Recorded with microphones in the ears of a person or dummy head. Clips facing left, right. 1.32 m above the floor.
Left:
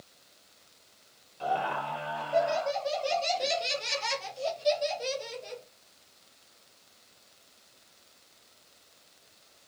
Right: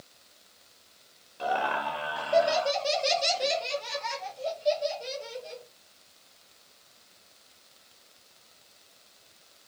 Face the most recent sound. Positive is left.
turn(degrees=75)  # may be behind; listen again after turning